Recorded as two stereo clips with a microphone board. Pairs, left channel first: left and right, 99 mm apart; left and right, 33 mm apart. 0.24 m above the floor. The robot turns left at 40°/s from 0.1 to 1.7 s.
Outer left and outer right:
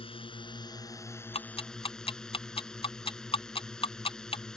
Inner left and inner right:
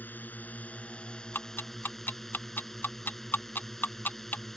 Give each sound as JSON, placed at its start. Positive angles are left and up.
{"t": 0.0, "sound": "a drone", "azimuth_deg": 70}
{"t": 1.3, "sound": "ticking", "side_deg": 75}